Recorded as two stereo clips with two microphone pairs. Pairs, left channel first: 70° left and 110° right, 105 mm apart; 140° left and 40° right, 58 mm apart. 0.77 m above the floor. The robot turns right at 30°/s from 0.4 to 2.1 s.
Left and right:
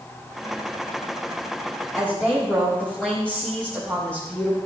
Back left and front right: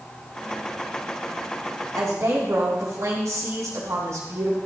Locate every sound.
1.9 s a woman speaking: 15° right, 5 m; by 4.6 s 10° right, 5 m